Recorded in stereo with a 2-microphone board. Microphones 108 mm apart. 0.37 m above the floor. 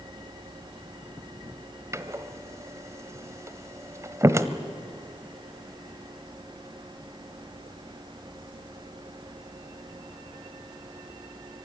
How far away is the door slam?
About 1.1 m.